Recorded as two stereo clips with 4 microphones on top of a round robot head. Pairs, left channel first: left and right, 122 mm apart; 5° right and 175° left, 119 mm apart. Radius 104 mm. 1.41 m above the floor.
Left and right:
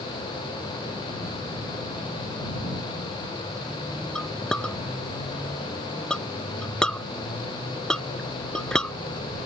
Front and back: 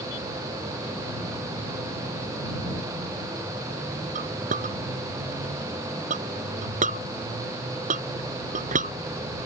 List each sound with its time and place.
4.2 s a clink: 175° left